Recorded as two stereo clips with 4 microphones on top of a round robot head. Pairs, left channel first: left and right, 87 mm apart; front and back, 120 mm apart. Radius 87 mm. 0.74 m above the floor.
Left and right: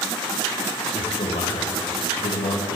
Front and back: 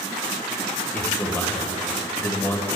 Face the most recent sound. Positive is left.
turn(degrees=70)